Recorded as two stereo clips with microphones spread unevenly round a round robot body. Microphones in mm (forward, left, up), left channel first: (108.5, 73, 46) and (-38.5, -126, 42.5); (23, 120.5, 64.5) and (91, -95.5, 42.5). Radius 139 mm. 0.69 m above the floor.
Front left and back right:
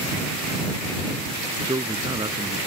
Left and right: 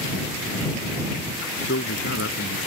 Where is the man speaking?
155° left.